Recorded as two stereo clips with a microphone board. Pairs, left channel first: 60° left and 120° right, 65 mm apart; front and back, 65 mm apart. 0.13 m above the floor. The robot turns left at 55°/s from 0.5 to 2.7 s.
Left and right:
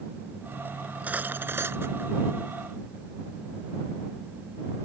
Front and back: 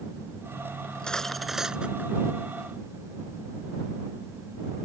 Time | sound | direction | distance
0.8 | cutlery clinking | 60° right | ?